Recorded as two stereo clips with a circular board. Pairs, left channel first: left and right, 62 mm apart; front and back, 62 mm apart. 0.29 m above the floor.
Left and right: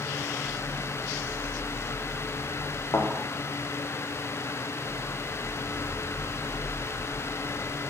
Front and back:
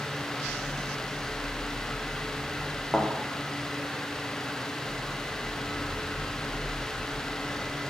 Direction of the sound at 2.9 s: 85° left.